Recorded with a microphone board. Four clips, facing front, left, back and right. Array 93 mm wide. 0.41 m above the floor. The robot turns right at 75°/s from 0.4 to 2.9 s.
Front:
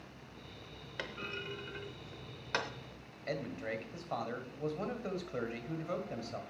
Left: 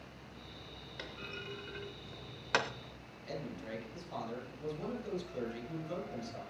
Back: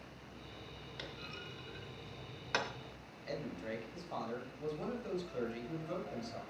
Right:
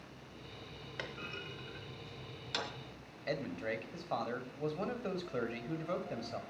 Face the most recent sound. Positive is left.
turn(degrees=-55)